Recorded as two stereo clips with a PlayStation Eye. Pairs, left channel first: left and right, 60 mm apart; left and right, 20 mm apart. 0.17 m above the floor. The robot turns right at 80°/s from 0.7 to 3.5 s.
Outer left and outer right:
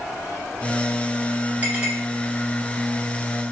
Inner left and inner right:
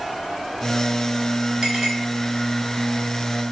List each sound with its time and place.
1.6 s a clink: 30° right (ahead or behind), 1.7 m; by 1.9 s 10° right (ahead or behind), 1.7 m